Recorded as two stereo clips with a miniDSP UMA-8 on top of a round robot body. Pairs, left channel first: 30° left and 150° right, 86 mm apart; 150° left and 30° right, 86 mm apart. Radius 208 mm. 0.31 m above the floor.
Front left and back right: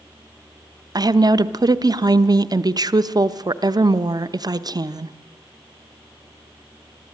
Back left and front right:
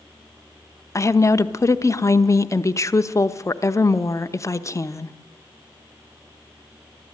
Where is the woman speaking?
170° right, 1.1 m.